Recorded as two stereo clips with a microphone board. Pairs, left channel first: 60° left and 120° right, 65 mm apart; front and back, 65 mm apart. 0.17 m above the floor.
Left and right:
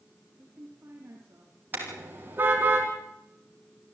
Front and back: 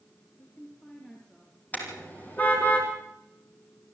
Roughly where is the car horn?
Ahead right.